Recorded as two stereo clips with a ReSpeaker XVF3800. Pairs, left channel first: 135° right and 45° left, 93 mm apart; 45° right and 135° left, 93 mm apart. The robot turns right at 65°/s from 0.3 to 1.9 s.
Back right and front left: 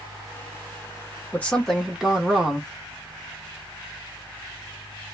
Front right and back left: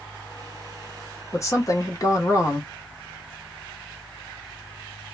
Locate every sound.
1.3 s a woman speaking: 75° right, 0.8 m; by 2.7 s 35° right, 0.8 m